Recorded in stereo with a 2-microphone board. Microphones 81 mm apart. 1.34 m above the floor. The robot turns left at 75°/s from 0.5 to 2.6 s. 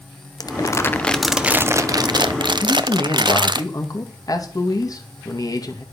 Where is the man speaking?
45° left (ahead or behind), 2 m.